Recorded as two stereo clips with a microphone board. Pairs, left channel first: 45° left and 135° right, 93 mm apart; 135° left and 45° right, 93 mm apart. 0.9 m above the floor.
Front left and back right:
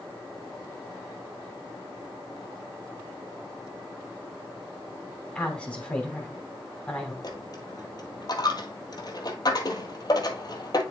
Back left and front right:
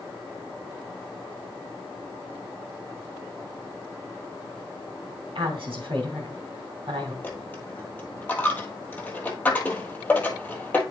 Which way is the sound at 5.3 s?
30° right.